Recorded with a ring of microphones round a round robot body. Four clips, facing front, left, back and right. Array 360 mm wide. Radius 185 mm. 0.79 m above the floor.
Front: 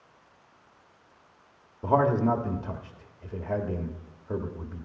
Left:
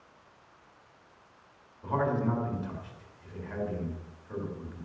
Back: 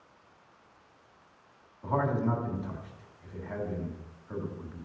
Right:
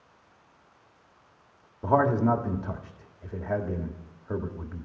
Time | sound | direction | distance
1.8 | a man speaking | 45° right | 1.6 m